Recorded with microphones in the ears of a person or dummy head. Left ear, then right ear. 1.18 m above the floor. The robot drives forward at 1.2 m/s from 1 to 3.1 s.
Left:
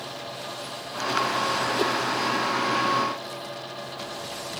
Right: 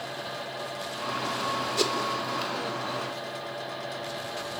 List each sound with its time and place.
1.8 s a whoosh: 45° right (ahead or behind), 2.5 m; by 1.9 s 50° right (ahead or behind), 2 m